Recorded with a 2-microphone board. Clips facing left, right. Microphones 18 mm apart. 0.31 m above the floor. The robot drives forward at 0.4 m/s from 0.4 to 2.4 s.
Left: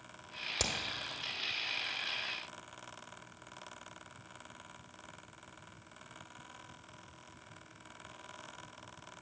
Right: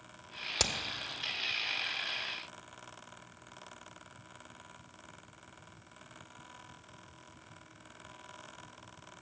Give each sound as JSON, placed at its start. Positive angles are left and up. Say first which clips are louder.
{"t": 0.6, "sound": "hammering", "louder": "right 4 dB", "side_deg": -20, "distance_m": 0.9}